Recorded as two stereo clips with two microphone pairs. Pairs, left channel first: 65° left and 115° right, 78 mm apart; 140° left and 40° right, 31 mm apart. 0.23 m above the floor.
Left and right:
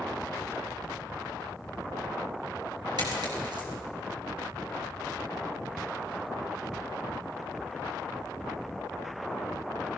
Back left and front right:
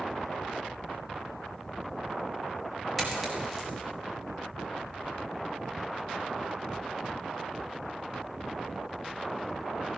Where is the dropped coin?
135° right, 6.5 m.